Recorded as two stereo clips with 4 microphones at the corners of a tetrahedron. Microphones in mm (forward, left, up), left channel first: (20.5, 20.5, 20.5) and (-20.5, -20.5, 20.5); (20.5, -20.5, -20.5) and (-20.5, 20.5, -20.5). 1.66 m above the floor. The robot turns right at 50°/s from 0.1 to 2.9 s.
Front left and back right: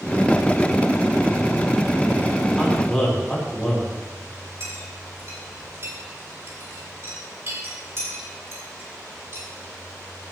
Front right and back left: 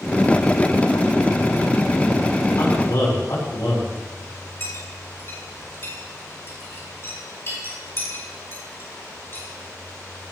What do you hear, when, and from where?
2.6 s a man speaking: 50° right, 4 m; by 3.9 s 35° right, 4 m
4.6 s a clink: 90° right, 4.5 m